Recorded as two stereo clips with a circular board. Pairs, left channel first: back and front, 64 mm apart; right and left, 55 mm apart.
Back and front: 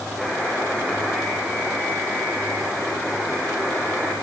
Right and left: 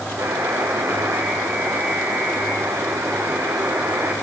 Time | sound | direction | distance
0.2 | a buzzer | 80° left | 5.5 m